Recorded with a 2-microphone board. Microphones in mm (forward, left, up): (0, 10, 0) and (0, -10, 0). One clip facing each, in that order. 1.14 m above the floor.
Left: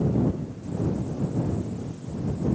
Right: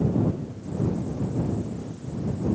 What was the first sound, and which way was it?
Only background noise.